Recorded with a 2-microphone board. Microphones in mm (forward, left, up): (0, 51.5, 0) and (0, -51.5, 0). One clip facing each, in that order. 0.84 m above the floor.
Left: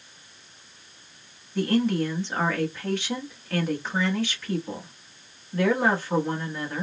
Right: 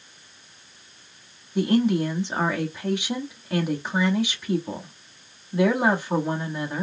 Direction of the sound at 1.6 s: 15° right (ahead or behind).